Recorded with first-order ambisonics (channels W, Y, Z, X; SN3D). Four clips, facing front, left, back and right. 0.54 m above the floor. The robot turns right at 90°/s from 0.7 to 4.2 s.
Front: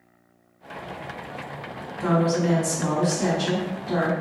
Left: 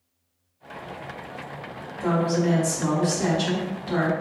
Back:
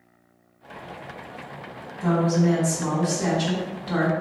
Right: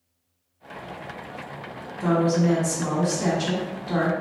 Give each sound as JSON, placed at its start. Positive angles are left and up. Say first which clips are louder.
{"t": 2.0, "sound": "a woman speaking", "louder": "right 2 dB, even", "azimuth_deg": -40, "distance_m": 1.3}